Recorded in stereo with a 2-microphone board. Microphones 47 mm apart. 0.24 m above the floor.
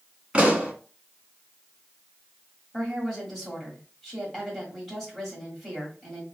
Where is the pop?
25° right (ahead or behind), 1.0 m.